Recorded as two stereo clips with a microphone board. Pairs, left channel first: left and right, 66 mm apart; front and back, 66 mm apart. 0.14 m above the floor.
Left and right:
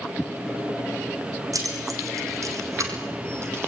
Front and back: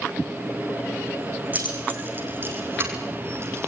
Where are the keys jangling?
115° right, 6 m; by 3.7 s 140° right, 3.5 m.